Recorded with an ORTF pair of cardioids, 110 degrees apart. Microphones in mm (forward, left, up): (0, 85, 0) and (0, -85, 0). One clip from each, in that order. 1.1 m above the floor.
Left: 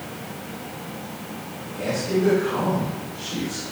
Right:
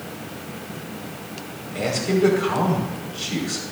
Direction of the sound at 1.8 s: 60° right.